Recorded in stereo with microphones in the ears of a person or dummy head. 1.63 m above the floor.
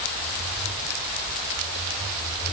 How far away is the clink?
I don't hear a clink.